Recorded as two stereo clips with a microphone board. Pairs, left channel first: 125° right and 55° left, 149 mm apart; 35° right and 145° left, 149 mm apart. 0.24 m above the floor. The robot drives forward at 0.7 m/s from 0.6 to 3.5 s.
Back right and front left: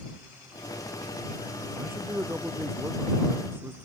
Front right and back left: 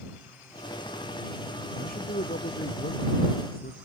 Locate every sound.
1.8 s a man speaking: 20° right